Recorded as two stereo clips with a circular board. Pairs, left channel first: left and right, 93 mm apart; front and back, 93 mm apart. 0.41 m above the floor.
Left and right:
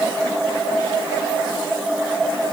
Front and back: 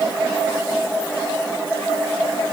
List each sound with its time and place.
Only background noise.